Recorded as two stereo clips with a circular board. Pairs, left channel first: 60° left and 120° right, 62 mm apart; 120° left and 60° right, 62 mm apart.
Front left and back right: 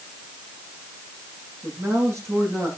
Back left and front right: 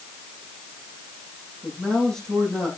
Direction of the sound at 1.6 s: 160° right.